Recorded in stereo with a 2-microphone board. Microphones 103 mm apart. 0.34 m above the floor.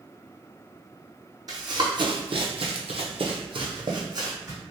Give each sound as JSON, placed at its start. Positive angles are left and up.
{"t": 1.5, "sound": "running footsteps", "side_deg": -40, "distance_m": 1.0}